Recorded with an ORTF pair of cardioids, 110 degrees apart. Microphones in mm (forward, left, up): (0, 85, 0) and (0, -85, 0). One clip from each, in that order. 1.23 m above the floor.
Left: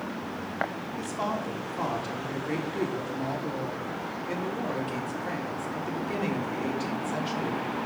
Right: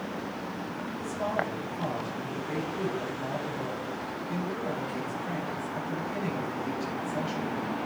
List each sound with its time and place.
1.0 s a woman speaking: 65° left, 3.5 m